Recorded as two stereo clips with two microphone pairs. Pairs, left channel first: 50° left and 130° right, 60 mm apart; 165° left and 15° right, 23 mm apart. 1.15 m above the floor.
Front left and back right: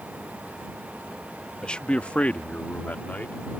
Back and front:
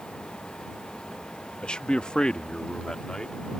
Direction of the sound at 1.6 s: 125° left.